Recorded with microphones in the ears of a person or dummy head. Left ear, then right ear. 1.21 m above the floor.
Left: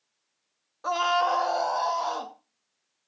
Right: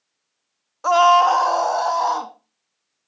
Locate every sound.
0.8 s a scream: 30° right (ahead or behind), 0.6 m; by 2.3 s 40° right (ahead or behind), 1.8 m